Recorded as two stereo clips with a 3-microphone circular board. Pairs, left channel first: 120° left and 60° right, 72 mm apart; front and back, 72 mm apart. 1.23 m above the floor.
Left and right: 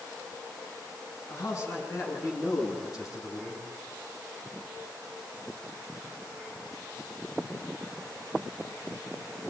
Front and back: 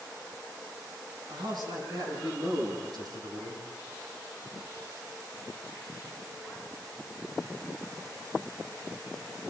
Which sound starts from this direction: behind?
A man speaking, at 1.3 s.